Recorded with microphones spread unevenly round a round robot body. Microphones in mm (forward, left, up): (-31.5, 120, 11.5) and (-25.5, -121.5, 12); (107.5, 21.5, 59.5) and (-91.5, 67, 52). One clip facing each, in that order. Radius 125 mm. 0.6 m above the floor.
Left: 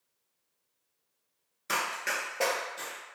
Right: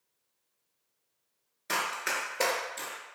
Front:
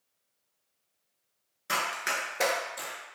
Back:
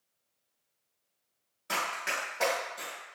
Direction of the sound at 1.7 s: 15° left.